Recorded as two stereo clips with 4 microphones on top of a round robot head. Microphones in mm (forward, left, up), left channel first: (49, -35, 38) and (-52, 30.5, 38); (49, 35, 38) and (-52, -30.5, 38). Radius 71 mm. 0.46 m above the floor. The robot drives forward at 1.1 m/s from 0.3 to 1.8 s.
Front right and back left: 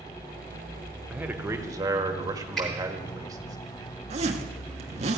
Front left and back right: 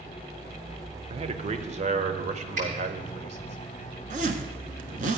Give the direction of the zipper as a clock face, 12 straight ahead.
6 o'clock.